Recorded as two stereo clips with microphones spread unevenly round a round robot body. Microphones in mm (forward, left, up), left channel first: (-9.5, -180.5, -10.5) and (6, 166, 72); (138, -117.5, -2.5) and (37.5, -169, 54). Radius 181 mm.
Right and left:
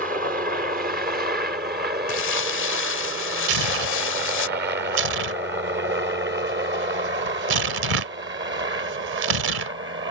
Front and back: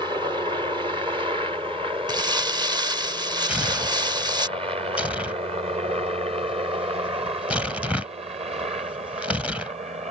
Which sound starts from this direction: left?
Tearing paper, at 3.5 s.